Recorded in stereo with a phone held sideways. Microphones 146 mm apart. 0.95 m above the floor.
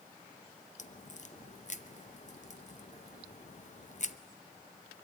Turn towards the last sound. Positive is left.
turn(degrees=50)  # may be behind; listen again after turning